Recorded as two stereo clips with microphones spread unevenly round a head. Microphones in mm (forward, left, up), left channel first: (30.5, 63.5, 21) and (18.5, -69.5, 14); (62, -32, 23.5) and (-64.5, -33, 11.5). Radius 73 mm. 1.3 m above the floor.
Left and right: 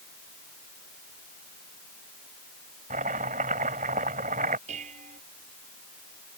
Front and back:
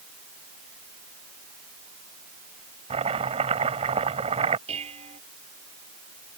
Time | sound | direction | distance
2.9 | chopping | 140° right | ?
4.7 | dishes clattering | 140° right | ?